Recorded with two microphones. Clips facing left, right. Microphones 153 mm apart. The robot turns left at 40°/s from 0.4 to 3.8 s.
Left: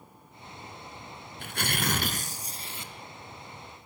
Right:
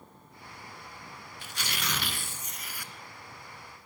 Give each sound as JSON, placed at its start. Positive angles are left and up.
{"t": 1.4, "sound": "tearing paper", "azimuth_deg": 85, "distance_m": 1.8}